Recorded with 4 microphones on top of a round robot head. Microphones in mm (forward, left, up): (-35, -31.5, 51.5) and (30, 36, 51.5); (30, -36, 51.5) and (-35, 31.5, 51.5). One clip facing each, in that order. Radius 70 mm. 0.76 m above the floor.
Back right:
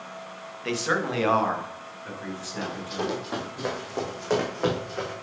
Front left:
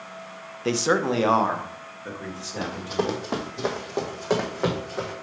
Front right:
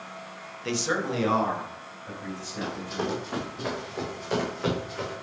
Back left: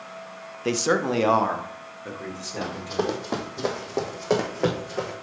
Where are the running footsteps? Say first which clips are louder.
Front left 4 dB, back left 4 dB; 85° left, 1.2 m; by 5.1 s 135° left, 2 m.